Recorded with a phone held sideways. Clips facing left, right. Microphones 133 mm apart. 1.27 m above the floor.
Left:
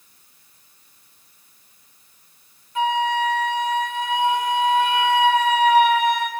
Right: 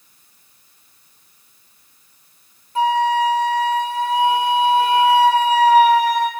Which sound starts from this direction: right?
A flute, at 2.8 s.